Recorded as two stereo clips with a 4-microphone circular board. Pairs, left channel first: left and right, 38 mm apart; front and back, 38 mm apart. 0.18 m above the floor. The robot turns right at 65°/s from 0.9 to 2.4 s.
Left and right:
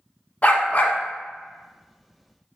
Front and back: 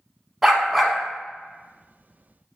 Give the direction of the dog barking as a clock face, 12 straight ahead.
9 o'clock.